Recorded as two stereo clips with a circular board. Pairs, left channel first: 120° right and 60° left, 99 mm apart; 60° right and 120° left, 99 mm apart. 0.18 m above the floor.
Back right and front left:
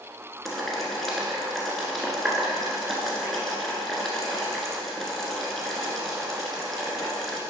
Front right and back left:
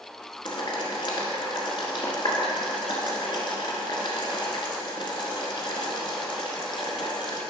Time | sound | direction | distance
0.5 | boiling | 35° right | 1.2 m